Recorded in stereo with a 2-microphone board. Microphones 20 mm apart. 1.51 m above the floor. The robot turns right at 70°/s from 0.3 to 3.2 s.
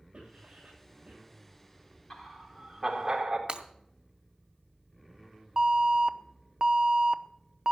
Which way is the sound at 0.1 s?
75° right (ahead or behind).